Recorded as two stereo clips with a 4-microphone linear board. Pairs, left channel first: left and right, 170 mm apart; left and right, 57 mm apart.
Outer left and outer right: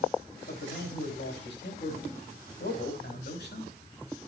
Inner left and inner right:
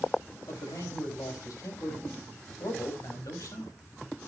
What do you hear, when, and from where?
0.5 s a man speaking: 80° left, 5.5 m